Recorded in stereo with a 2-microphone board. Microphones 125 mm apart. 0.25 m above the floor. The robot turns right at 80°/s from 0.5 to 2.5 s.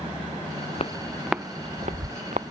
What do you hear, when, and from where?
0.8 s footsteps: 55° left (ahead or behind); by 2.4 s 55° right (ahead or behind)